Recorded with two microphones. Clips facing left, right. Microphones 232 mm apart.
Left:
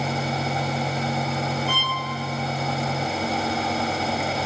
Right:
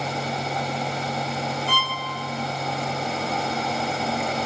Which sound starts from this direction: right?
A violin, at 1.7 s.